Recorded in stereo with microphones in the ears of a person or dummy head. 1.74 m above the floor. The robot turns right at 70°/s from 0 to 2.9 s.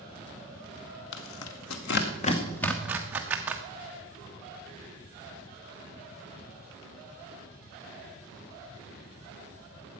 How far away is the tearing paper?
About 1.1 m.